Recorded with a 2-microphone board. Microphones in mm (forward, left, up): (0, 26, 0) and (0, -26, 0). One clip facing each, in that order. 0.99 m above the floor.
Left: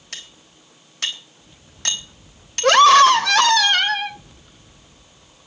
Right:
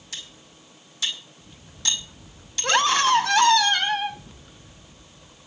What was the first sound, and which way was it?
Cutlery clinking, 55° left (ahead or behind).